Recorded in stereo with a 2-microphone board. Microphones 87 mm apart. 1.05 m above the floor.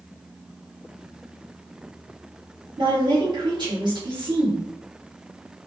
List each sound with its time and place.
2.8 s a woman speaking: 55° right (ahead or behind), 1.1 m